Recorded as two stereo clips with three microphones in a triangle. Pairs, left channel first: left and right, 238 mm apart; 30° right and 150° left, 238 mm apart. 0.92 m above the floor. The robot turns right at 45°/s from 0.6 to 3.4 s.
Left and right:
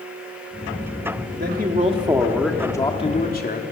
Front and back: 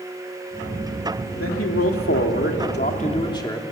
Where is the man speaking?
50° right, 2.5 m; by 3.6 s 40° left, 2.5 m.